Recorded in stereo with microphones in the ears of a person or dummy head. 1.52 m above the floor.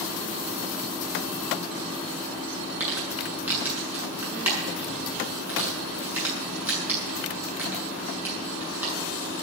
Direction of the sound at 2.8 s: 10° right (ahead or behind).